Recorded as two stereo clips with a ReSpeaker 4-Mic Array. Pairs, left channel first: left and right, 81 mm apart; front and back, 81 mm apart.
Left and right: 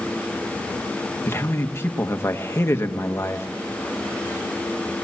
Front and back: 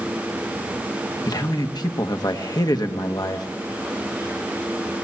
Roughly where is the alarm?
No alarm in this recording.